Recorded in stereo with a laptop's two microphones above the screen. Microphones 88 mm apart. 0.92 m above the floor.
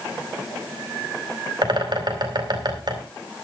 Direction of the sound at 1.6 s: 55° right (ahead or behind).